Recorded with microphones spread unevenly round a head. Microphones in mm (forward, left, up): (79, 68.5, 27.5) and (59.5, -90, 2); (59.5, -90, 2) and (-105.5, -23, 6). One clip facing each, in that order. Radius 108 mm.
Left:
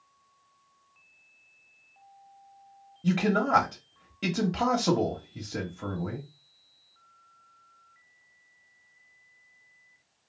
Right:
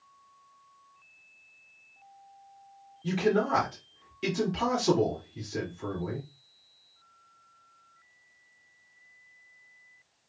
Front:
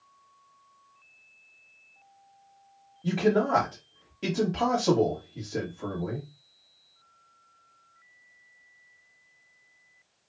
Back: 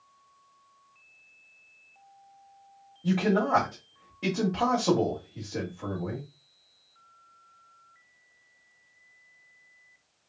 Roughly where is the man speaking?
Ahead left.